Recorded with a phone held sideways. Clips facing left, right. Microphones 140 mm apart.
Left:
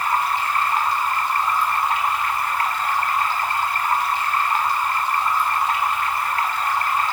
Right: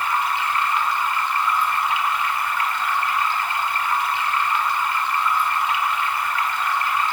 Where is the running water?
40° left (ahead or behind), 2 m.